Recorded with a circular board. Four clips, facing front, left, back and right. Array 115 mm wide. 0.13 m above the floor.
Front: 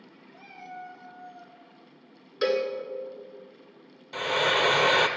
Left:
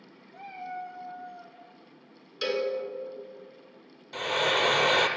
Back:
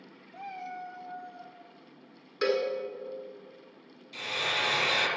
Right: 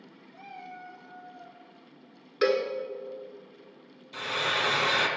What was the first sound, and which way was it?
A cat meowing, 150° left.